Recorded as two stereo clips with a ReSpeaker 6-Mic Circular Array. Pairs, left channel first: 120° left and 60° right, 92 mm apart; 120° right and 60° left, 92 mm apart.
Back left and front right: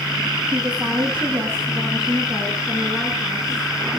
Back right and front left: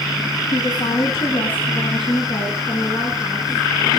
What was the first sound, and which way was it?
A woman speaking, 125° right.